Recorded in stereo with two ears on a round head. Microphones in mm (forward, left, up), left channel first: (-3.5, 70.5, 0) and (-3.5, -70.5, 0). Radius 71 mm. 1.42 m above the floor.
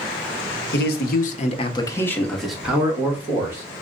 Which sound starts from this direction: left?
A man speaking, at 0.7 s.